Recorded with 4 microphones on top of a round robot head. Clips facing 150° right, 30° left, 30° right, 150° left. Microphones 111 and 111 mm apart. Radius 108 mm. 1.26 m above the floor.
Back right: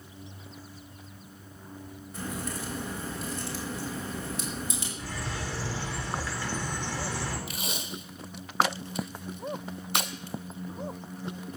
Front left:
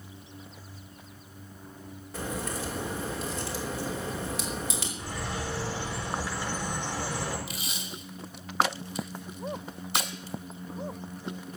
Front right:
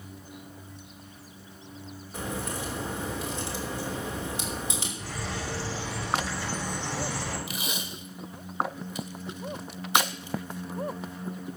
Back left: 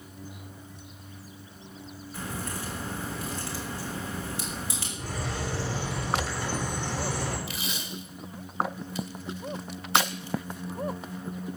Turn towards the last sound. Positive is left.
turn(degrees=-105)